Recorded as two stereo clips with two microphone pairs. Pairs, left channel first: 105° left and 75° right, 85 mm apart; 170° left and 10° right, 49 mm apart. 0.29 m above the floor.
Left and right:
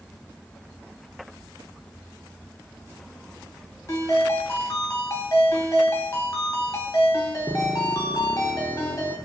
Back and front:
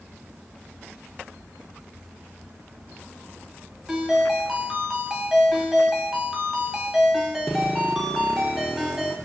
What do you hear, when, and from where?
3.9 s a ringtone: 70° left, 0.7 m